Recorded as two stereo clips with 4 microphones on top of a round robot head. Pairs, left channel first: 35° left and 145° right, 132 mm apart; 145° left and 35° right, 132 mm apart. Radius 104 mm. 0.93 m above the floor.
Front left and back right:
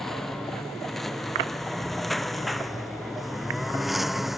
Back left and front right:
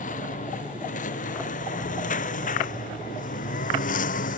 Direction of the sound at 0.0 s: 120° left.